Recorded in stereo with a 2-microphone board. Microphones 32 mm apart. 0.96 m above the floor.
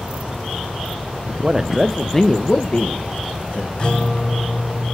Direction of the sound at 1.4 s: 30° right (ahead or behind).